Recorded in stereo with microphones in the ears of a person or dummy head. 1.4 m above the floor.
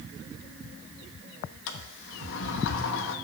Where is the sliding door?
70° left (ahead or behind), 1.2 m.